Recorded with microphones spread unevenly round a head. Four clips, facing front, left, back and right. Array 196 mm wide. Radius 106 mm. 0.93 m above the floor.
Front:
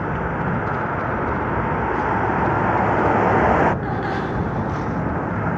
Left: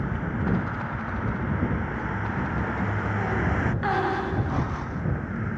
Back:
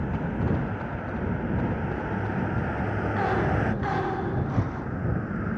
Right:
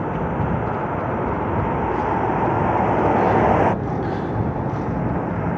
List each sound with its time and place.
0.0 s a vehicle: 55° right; by 5.6 s 50° right